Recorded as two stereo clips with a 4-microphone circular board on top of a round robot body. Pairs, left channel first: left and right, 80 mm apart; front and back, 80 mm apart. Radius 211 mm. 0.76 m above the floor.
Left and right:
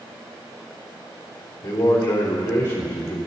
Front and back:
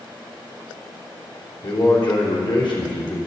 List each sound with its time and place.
1.6 s a man speaking: 30° left, 3 m